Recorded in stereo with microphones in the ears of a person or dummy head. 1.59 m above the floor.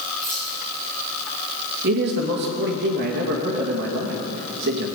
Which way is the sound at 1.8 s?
55° right (ahead or behind).